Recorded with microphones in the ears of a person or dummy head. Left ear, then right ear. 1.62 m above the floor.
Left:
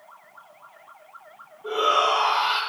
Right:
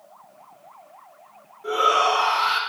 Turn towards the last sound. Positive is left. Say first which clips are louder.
# right 2 dB
turn(degrees=-85)